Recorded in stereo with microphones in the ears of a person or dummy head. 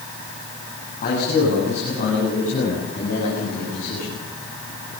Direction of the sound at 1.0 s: 45° left (ahead or behind).